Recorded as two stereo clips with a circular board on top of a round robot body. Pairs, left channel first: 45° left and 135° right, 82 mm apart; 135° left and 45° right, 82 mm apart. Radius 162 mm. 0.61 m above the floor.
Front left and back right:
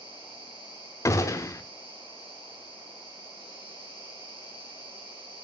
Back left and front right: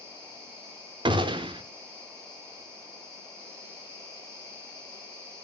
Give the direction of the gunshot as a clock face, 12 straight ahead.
12 o'clock.